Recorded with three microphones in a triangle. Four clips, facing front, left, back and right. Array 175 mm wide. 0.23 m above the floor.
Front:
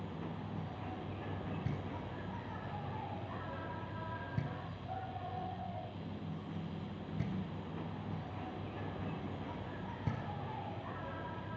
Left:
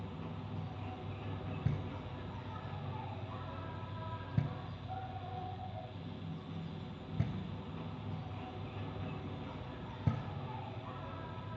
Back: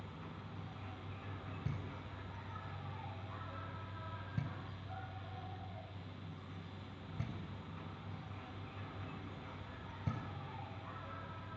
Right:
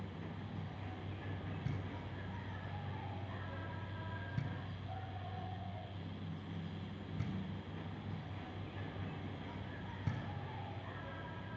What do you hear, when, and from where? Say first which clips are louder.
0.0 s an insect: left 2 dB, front 7 dB; 15° left, 2.5 m
1.6 s knocking: left 4 dB, front 5 dB; 65° left, 3.5 m